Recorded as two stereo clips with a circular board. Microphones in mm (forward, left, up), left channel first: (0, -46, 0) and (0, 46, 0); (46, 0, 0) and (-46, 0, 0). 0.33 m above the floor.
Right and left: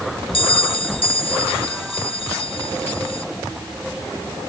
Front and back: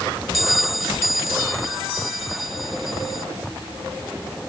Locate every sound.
0.3 s a bell: 90° right